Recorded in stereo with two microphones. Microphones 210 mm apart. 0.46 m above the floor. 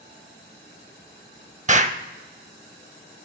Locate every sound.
1.7 s an explosion: 35° right (ahead or behind), 0.6 m